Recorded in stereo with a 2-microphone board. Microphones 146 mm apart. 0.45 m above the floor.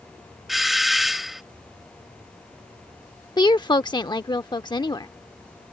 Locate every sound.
0.5 s a doorbell: centre (ahead or behind)
3.4 s a woman speaking: 30° left (ahead or behind)